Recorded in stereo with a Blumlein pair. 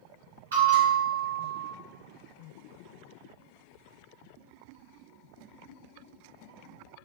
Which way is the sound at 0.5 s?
70° right.